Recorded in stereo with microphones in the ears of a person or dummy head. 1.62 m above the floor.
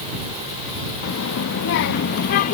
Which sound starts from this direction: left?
A child speaking, at 1.0 s.